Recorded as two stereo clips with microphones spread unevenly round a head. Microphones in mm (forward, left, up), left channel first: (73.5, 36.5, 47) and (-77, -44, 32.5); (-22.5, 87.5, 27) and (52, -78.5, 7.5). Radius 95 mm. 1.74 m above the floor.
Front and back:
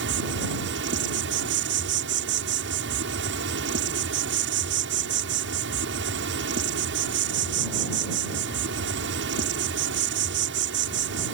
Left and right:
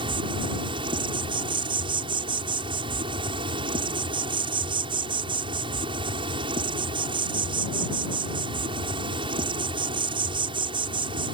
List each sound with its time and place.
0.0 s an insect: 135° right